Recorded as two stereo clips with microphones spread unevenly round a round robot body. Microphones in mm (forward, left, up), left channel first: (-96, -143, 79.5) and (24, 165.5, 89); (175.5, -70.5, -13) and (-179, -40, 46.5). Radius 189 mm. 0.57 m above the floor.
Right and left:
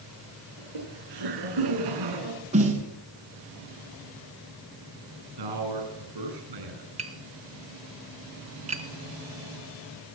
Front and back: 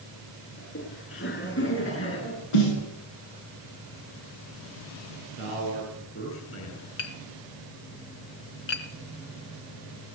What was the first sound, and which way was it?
Laughter, 55° left.